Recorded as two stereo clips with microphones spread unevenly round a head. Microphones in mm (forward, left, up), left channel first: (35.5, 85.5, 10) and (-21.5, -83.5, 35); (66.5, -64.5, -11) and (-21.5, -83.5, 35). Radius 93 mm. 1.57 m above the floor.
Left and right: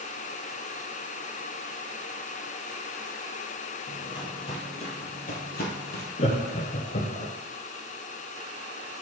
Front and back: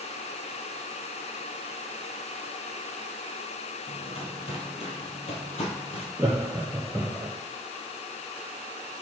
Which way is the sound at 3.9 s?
5° left.